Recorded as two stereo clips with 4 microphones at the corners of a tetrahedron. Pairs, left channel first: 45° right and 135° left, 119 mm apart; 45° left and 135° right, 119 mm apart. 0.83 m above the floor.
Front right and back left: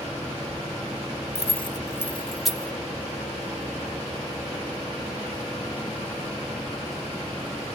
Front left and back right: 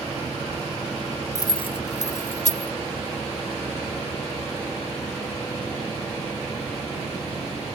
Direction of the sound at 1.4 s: 20° right.